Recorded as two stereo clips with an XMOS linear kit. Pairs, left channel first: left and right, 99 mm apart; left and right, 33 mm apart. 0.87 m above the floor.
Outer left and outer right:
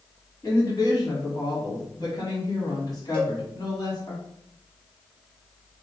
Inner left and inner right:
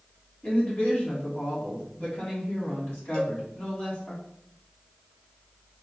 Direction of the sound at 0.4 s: 45° left (ahead or behind).